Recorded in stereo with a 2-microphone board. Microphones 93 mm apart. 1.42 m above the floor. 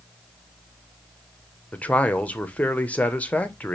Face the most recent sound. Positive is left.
turn(degrees=15)  # may be behind; listen again after turning